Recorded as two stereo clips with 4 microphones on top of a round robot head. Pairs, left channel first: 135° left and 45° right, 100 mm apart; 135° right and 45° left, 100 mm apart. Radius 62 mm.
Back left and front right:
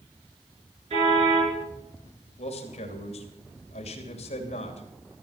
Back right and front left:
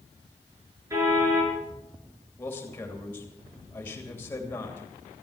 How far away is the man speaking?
About 3 m.